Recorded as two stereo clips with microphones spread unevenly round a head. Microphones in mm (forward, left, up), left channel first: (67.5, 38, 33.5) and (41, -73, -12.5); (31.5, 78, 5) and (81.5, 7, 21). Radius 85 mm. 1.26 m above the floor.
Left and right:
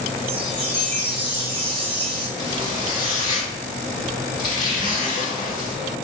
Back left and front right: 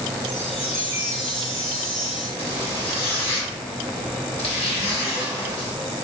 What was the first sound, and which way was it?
A chime, 105° right.